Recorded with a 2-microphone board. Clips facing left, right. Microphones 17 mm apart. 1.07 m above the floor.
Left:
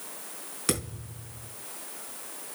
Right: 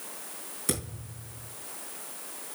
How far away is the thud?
About 4.5 m.